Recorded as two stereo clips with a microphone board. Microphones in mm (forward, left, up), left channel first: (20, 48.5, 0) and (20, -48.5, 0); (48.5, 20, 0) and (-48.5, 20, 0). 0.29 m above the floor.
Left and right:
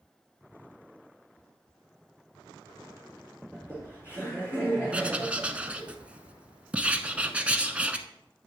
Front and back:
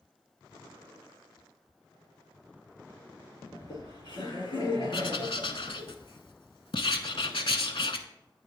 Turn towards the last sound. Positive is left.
turn(degrees=-15)